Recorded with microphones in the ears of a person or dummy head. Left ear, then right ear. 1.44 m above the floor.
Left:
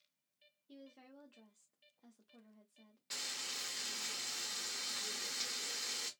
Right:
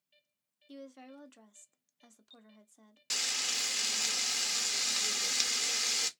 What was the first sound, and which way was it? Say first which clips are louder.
A woman speaking: right 9 dB; 45° right (ahead or behind).